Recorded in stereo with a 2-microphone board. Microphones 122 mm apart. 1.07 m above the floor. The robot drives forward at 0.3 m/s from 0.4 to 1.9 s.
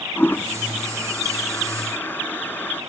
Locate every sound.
0.2 s a toilet flushing: 15° left (ahead or behind)